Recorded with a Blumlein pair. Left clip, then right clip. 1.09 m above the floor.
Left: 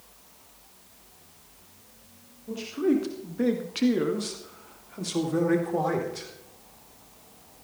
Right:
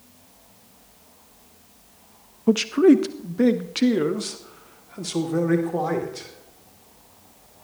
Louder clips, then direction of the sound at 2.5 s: Right 10 dB; 40° right.